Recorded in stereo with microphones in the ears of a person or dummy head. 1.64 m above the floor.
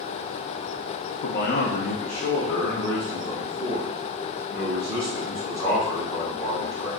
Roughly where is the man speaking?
Left.